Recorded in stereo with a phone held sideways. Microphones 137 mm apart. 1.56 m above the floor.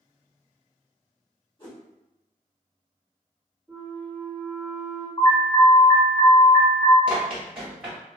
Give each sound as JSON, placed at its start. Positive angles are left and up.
{"t": 1.6, "sound": "a whoosh", "side_deg": 35, "distance_m": 1.0}
{"t": 3.7, "sound": "a flute", "side_deg": -10, "distance_m": 1.6}
{"t": 5.2, "sound": "an alarm", "side_deg": 35, "distance_m": 1.5}
{"t": 7.1, "sound": "running footsteps", "side_deg": -5, "distance_m": 1.6}